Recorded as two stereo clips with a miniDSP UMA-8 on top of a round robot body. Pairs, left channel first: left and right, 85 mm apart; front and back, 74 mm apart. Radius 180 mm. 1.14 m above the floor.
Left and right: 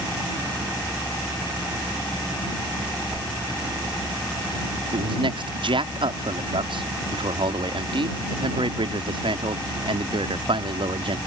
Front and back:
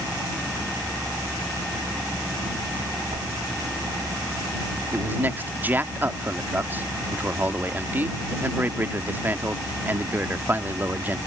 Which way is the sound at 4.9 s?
115° right.